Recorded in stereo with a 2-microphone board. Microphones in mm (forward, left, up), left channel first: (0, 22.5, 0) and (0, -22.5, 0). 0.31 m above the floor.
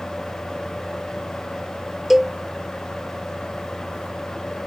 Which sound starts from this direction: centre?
A cowbell, at 2.1 s.